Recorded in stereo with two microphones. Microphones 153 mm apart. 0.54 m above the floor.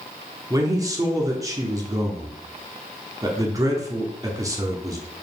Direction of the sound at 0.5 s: 20° right (ahead or behind).